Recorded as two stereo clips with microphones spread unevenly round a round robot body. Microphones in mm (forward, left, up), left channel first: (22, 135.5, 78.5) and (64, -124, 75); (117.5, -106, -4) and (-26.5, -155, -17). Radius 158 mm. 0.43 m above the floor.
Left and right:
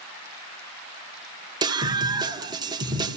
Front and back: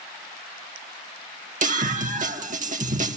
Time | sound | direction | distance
1.6 | a scream | 155° right | 2.5 m